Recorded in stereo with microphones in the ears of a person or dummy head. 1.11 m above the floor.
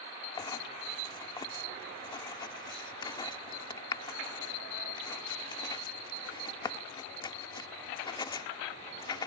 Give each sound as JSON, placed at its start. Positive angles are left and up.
{"t": 0.4, "sound": "writing", "side_deg": 25}